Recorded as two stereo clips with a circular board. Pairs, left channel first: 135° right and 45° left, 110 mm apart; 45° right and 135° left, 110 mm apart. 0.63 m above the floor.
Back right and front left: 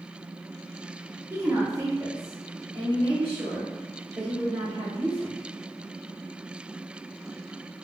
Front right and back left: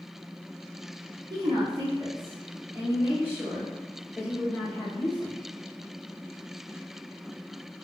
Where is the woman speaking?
110° left, 1.5 m; by 5.4 s 40° left, 2.5 m.